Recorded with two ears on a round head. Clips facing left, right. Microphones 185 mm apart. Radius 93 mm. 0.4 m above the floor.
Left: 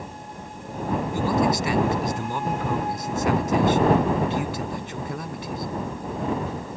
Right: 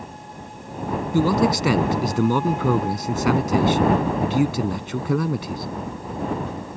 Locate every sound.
1.1 s a man speaking: 60° right (ahead or behind)